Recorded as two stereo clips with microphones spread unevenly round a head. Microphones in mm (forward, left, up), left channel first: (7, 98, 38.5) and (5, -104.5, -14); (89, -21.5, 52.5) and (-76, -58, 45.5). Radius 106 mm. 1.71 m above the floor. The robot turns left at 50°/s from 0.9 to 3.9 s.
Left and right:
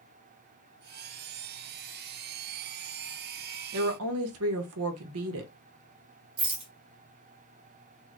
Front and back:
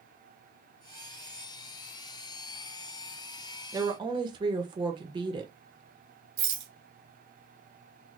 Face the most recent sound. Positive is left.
turn(degrees=-165)